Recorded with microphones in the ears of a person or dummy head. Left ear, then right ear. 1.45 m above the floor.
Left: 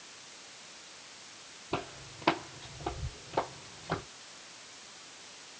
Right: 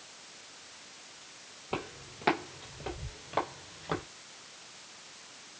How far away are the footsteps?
About 1.7 m.